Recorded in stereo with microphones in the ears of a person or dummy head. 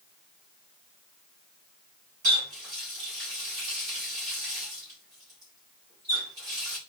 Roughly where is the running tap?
Right.